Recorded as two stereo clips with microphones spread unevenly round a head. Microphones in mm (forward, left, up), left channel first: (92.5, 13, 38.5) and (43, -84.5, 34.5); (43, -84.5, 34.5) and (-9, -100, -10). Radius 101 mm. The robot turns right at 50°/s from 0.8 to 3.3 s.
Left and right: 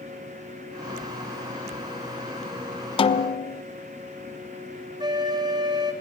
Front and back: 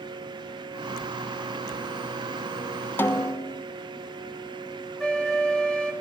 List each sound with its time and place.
3.0 s a snare drum: 30° left, 1.1 m; by 3.6 s 45° left, 1.1 m
5.0 s a flute: 65° right, 4 m